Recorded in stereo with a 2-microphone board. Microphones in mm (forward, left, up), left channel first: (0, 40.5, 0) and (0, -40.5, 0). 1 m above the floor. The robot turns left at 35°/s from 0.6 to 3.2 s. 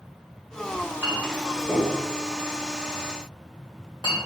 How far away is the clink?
About 1.8 m.